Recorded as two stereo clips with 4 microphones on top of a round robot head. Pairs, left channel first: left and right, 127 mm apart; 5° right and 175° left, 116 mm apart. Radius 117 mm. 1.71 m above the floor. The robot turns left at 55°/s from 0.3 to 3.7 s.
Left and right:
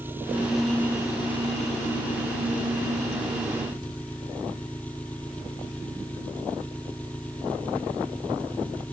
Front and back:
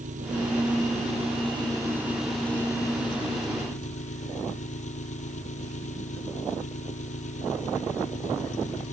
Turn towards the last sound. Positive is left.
turn(degrees=10)